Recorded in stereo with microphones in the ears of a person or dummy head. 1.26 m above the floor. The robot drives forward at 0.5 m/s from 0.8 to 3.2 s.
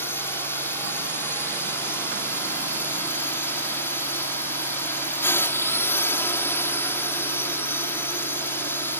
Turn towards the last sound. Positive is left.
turn(degrees=20)  # may be behind; listen again after turning